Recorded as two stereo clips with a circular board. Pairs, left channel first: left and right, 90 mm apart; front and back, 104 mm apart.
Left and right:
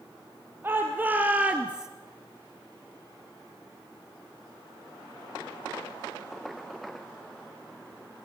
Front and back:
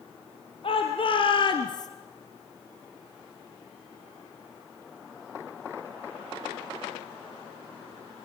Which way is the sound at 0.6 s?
25° right.